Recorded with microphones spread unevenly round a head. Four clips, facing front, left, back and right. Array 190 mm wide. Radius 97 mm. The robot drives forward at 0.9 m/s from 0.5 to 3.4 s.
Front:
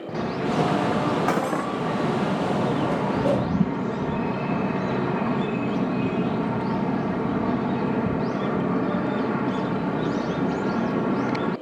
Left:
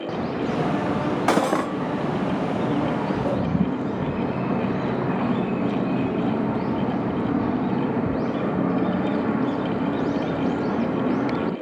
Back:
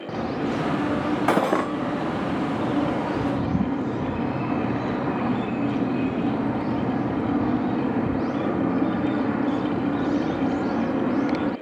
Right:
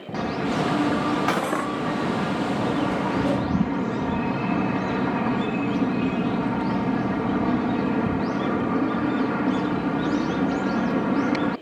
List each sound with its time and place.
1.3 s cutlery clinking: 170° left, 0.6 m; by 1.7 s 175° left, 1.0 m